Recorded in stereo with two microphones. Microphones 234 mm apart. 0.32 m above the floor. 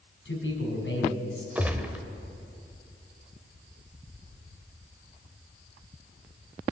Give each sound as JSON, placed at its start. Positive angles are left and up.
{"t": 0.2, "sound": "a man speaking", "side_deg": 55, "distance_m": 3.5}
{"t": 1.6, "sound": "a gunshot", "side_deg": -5, "distance_m": 0.9}